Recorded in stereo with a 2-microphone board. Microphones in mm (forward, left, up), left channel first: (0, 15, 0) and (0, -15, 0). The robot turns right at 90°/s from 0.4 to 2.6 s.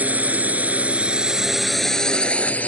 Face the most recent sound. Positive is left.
turn(degrees=55)  # may be behind; listen again after turning